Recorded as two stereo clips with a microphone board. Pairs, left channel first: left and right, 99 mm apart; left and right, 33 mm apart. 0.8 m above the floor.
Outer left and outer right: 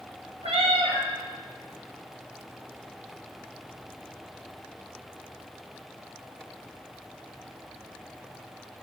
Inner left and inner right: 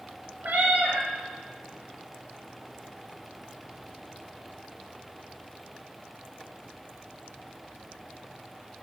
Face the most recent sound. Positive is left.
turn(degrees=-75)  # may be behind; listen again after turning